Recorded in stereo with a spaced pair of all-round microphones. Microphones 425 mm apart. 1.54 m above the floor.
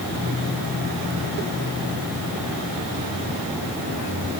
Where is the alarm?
I don't hear an alarm.